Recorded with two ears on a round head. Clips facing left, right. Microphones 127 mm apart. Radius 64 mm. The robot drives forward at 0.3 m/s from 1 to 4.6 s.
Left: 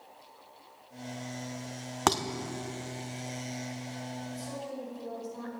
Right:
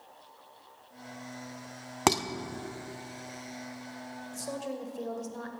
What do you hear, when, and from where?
2.1 s dishes clattering: 10° right (ahead or behind), 0.8 m
4.3 s a woman speaking: 55° right (ahead or behind), 2.5 m